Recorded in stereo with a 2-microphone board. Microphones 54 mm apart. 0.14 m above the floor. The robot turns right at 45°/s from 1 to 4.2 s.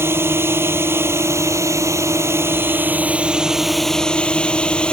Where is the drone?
120° right; by 4.9 s 25° left.